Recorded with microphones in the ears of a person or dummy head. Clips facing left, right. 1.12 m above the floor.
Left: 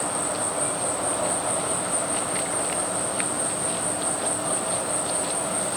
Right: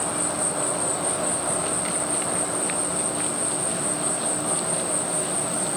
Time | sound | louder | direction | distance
0.0 | an insect | even | 20° right (ahead or behind) | 1.8 m